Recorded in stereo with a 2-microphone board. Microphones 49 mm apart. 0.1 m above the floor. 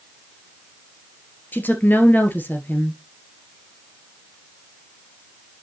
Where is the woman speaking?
40° left (ahead or behind), 1.5 m.